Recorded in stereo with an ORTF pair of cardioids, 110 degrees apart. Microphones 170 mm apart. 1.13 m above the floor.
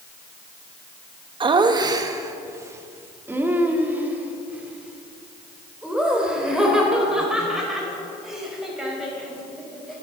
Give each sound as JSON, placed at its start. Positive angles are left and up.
{"t": 1.4, "sound": "laughter", "azimuth_deg": -30, "distance_m": 1.2}